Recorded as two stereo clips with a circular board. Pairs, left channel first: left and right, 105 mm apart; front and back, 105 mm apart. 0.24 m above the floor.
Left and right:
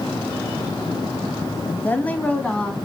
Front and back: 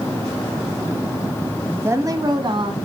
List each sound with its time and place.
1.7 s a woman speaking: 130° left, 1.0 m; by 2.9 s 170° left, 1.8 m